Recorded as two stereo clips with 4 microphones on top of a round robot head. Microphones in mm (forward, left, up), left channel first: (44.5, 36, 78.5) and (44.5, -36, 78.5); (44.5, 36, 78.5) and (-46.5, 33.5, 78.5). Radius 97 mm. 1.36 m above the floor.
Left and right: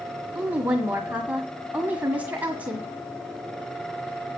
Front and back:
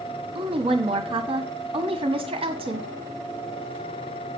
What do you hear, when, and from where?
0.3 s a woman speaking: 165° right, 1.6 m